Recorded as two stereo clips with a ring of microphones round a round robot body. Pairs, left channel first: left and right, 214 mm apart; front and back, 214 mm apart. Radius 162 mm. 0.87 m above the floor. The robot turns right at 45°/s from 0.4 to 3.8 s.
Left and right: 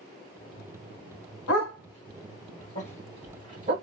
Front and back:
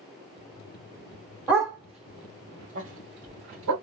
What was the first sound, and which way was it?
A dog barking, 95° left.